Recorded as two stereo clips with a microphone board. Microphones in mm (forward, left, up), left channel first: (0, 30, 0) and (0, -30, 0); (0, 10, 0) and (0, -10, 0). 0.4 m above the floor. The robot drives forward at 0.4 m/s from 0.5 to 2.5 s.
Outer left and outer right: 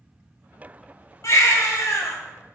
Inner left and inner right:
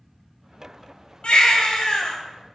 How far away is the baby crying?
About 1.5 m.